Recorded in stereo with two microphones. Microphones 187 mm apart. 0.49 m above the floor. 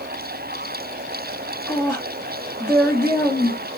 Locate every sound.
1.7 s a woman speaking: 15° left (ahead or behind), 1.3 m